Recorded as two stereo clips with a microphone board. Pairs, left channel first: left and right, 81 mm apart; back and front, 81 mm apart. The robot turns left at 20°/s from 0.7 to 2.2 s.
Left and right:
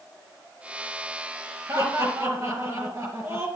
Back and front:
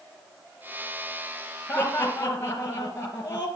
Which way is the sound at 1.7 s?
115° right.